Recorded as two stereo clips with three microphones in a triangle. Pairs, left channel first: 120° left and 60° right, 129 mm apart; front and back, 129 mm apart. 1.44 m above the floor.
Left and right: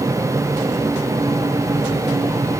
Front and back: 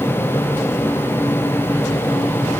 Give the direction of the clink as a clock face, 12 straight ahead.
I don't hear a clink.